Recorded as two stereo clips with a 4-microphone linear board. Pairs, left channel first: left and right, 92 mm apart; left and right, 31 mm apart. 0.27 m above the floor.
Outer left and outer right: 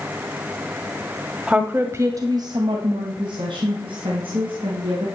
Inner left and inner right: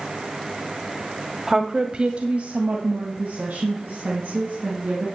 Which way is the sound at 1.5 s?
10° right (ahead or behind).